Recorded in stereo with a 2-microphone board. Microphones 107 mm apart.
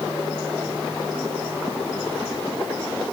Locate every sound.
Only background noise.